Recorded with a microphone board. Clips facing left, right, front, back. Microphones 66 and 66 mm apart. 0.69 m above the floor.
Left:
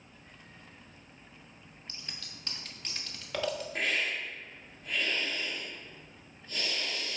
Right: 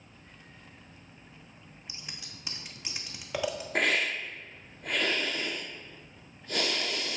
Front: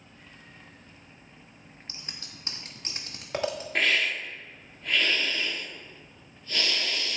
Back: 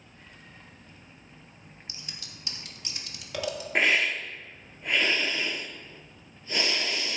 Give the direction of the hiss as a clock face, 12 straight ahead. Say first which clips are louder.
Right 7 dB, back 2 dB; 4 o'clock.